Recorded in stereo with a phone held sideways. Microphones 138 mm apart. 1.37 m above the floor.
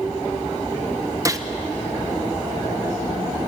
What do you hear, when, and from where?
1.2 s a gunshot: 25° right (ahead or behind), 1.1 m